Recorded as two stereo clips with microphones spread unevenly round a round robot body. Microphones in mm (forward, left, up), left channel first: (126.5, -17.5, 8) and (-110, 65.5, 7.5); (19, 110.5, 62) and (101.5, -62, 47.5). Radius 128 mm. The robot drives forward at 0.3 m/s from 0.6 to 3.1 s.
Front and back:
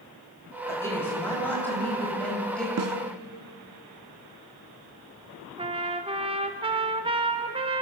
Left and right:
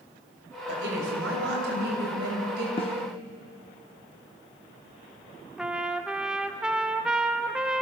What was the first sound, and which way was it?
A woman speaking, 100° right.